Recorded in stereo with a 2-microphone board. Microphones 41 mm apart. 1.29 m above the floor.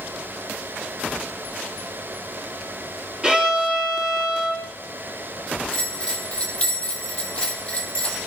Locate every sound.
3.2 s a violin: 25° right (ahead or behind), 3.5 m
5.7 s a bell: 25° left (ahead or behind), 3.5 m